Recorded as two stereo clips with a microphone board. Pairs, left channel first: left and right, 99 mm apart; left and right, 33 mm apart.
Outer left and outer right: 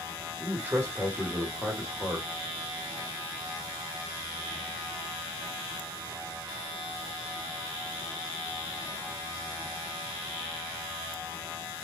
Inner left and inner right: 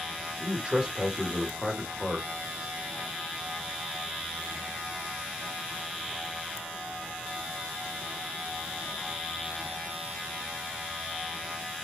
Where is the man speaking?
20° right (ahead or behind), 1.3 m.